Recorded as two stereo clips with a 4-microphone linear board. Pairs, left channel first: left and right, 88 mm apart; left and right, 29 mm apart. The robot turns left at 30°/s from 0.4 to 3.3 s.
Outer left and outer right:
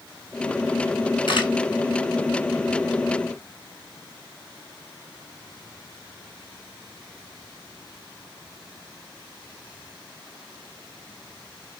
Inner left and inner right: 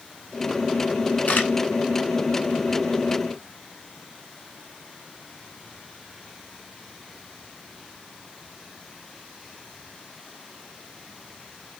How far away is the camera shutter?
About 2.5 m.